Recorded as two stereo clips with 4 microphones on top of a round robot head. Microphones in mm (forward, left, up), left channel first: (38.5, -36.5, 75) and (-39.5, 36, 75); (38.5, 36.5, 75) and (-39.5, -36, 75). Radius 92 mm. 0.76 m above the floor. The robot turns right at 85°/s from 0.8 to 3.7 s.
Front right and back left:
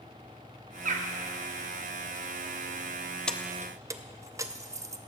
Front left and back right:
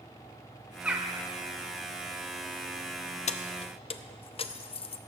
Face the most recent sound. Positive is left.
turn(degrees=75)